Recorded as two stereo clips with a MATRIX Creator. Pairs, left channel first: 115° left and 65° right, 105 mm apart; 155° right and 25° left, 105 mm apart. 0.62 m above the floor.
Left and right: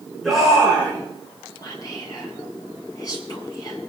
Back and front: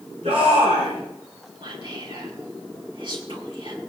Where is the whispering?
60° left, 7 m.